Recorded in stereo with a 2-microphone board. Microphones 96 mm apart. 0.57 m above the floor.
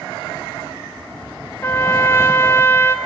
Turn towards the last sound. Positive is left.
turn(degrees=25)  # may be behind; listen again after turning